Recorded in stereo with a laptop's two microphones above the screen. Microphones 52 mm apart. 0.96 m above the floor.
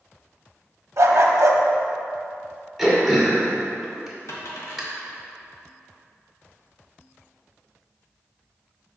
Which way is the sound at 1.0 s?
60° right (ahead or behind).